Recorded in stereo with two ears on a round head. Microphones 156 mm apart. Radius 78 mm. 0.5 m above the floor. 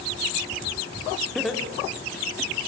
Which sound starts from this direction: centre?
Laughter, at 1.4 s.